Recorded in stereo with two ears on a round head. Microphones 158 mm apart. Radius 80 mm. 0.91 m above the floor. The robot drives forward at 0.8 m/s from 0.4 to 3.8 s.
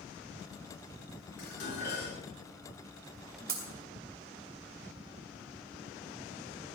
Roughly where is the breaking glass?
Right.